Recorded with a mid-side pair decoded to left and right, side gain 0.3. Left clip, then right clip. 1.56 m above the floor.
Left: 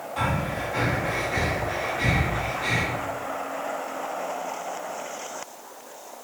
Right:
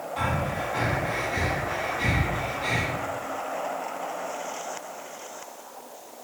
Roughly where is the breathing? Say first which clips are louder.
Left 1 dB; ahead.